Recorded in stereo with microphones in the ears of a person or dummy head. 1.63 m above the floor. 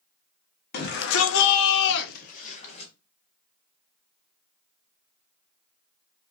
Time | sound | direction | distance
0.7 | a shout | 50° left (ahead or behind) | 0.6 m